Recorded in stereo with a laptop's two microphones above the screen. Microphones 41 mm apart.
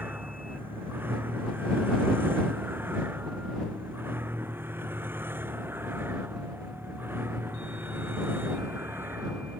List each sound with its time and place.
0.0 s a vehicle: 55° right (ahead or behind); by 9.6 s 65° right (ahead or behind)